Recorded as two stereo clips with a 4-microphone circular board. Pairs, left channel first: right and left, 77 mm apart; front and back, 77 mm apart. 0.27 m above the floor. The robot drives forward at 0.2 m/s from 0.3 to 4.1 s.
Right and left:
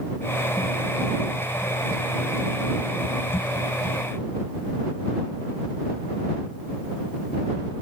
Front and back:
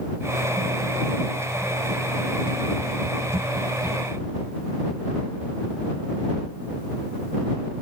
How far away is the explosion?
No explosion in this recording.